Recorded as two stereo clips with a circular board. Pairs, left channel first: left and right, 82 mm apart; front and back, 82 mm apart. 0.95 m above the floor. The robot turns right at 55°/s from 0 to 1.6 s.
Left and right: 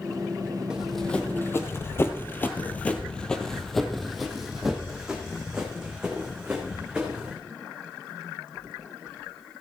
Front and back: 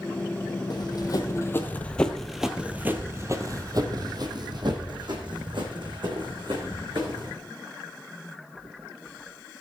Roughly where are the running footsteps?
Ahead.